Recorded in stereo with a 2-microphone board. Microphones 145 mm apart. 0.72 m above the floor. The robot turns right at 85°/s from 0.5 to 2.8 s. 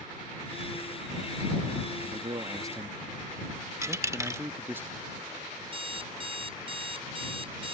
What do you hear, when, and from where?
2.0 s a man speaking: 85° right; by 4.8 s 20° right
3.8 s a dropped coin: 20° right (ahead or behind)
5.6 s an alarm clock: 40° right (ahead or behind)